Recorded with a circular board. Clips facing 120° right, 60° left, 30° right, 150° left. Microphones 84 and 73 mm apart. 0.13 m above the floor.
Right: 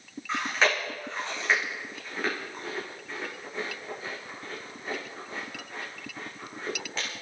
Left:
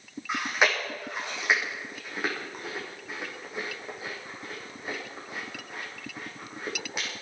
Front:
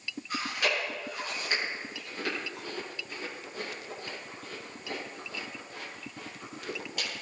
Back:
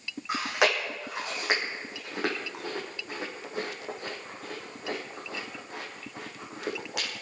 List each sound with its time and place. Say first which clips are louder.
0.3 s chewing: even, back 5 dB; 135° left, 5.5 m